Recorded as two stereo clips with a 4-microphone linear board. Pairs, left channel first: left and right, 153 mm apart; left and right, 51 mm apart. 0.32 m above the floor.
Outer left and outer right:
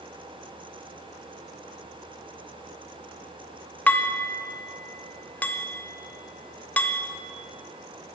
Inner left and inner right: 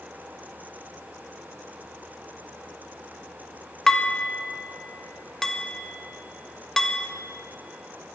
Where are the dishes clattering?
10° left (ahead or behind), 0.5 m.